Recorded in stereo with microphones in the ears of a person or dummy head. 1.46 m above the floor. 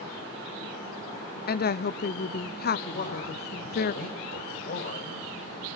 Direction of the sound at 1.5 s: 45° left (ahead or behind).